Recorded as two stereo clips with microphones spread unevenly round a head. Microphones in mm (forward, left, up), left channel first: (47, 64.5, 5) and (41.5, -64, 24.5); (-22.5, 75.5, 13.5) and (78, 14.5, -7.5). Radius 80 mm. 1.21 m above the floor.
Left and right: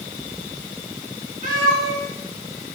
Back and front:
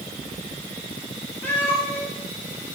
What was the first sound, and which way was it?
A cat meowing, 140° right.